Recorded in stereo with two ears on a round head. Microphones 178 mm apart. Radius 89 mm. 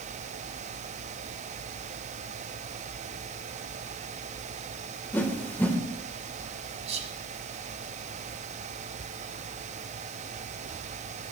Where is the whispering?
35° right (ahead or behind), 2.5 m.